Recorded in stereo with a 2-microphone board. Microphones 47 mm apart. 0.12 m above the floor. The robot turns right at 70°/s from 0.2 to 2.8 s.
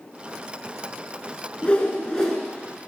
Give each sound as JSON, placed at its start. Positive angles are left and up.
{"t": 1.6, "sound": "a whoosh", "side_deg": 25, "distance_m": 1.5}